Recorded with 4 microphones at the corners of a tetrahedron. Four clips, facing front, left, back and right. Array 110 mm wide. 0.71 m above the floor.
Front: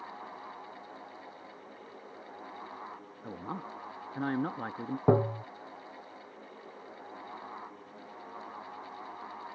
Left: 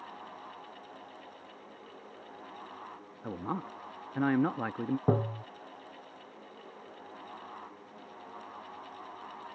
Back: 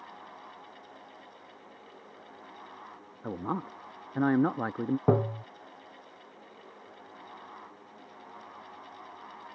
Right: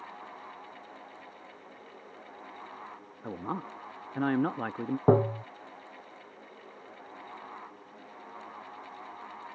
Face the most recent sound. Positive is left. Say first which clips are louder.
# right 9 dB, front 2 dB
turn(degrees=-85)